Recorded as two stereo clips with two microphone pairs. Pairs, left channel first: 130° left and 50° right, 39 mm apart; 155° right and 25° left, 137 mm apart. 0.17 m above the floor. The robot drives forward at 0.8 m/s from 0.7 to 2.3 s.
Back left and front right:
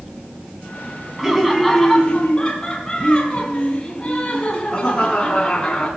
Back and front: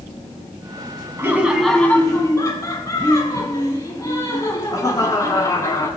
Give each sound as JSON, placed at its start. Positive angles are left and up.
{"t": 1.2, "sound": "laughter", "azimuth_deg": 0, "distance_m": 1.0}